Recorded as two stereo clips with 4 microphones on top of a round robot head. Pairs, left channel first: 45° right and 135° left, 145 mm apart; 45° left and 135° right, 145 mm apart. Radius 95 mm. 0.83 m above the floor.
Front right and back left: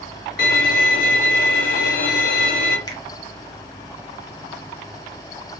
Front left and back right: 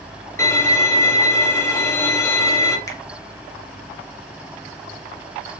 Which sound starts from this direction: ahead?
A finger snap, at 2.9 s.